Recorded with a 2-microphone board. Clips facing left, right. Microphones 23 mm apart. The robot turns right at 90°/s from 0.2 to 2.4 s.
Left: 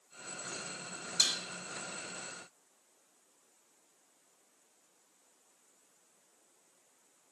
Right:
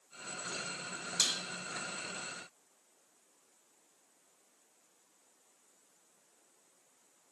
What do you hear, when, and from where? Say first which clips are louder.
1.2 s dishes clattering: left 2 dB; 20° left (ahead or behind), 1.1 m; by 1.4 s 35° left (ahead or behind), 1.1 m